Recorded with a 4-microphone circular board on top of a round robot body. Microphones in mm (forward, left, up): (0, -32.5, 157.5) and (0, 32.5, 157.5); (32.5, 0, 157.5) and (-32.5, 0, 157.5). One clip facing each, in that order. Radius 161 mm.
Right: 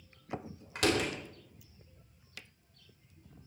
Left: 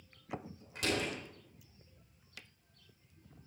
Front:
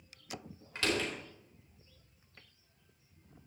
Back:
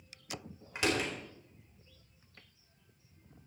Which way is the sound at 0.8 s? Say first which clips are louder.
Right 5 dB, back 1 dB; 110° right.